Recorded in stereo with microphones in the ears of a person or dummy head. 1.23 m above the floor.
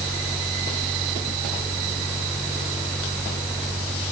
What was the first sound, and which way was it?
Only background noise.